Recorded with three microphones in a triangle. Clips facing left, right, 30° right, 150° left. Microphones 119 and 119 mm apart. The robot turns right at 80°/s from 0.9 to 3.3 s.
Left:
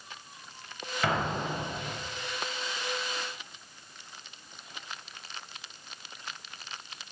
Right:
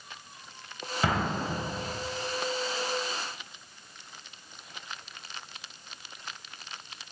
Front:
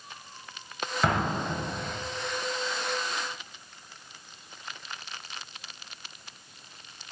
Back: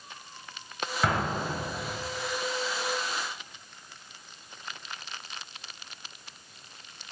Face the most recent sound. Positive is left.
turn(degrees=60)